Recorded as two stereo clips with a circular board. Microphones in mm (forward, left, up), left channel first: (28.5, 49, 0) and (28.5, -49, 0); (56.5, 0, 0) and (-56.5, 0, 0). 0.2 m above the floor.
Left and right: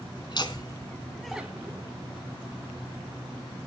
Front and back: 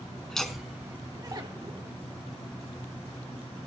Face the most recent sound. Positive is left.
turn(degrees=-145)